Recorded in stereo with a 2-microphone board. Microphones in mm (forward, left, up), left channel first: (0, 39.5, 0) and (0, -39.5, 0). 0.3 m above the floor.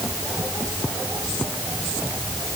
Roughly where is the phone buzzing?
No phone buzzing in this recording.